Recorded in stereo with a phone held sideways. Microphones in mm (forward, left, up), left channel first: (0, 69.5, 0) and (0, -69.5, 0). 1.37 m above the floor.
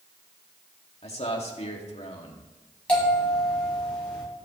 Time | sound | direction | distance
1.0 | a man speaking | 50° left (ahead or behind) | 2.5 m
2.9 | a bell | 10° left (ahead or behind) | 7 m